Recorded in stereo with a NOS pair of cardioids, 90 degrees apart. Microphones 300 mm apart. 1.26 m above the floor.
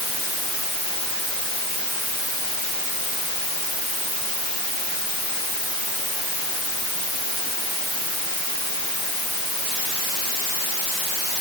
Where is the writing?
No writing in this recording.